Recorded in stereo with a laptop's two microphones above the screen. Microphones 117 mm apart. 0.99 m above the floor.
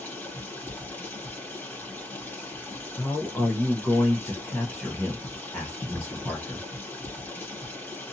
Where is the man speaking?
10° left (ahead or behind), 0.8 m.